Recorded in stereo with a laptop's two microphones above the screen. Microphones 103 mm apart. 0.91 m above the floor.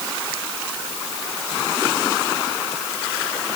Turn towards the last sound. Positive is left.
No sound to turn to.